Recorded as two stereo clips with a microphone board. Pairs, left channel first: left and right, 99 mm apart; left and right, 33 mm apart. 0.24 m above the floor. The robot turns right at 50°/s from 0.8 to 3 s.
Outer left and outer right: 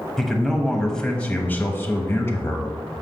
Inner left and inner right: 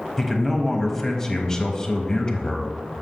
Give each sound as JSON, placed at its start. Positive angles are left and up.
{"t": 0.2, "sound": "a man speaking", "side_deg": 5, "distance_m": 1.0}